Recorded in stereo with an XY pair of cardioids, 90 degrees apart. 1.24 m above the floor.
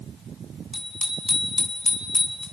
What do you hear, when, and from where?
0.7 s a bicycle bell: 35° left, 7.5 m; by 2.4 s 40° left, 8 m